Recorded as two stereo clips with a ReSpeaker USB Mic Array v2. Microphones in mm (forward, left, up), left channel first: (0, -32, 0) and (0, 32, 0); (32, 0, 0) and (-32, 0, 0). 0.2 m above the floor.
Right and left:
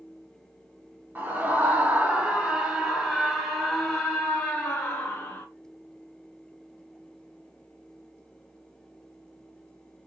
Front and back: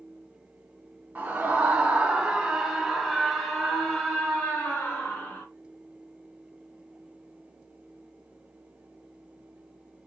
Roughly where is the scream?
Behind left.